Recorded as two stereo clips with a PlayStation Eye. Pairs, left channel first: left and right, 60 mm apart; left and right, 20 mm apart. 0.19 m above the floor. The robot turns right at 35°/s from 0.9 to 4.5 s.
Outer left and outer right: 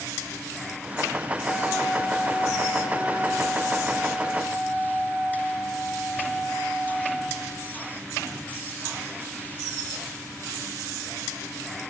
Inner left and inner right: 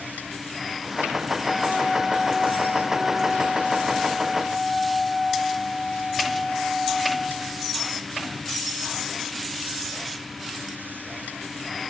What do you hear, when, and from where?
1.4 s a flute: 95° left, 3 m; by 7.7 s 160° right, 3 m